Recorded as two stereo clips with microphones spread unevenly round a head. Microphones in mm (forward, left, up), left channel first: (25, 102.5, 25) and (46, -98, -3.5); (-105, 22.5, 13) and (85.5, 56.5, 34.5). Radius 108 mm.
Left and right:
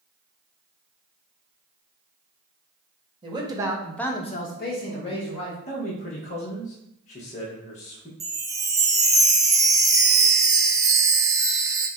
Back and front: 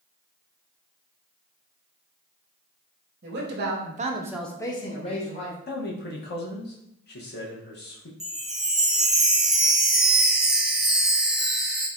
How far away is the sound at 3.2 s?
About 1.1 m.